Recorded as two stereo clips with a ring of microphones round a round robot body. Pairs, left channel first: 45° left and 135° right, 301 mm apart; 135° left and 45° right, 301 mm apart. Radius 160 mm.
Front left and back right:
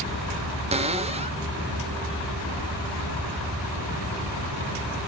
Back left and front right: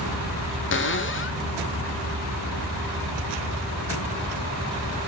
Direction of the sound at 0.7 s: 165° left.